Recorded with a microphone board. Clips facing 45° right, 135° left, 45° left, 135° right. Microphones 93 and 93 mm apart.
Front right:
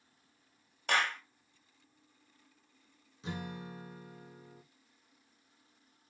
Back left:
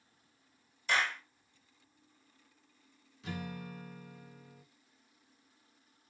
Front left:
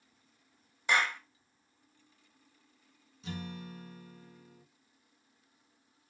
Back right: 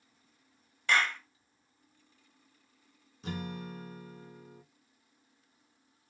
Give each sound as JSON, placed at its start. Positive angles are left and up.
{"t": 0.9, "sound": "a clap", "azimuth_deg": -25, "distance_m": 1.3}
{"t": 3.2, "sound": "a guitar", "azimuth_deg": -105, "distance_m": 0.9}